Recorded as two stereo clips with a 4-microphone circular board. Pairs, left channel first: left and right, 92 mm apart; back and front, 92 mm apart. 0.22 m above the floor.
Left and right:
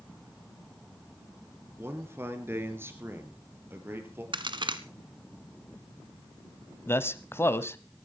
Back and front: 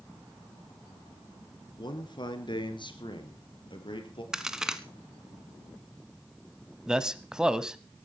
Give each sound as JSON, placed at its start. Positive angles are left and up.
{"t": 1.8, "sound": "a man speaking", "azimuth_deg": -155, "distance_m": 2.5}
{"t": 4.3, "sound": "a crack", "azimuth_deg": -85, "distance_m": 1.2}
{"t": 6.9, "sound": "a man speaking", "azimuth_deg": 75, "distance_m": 1.0}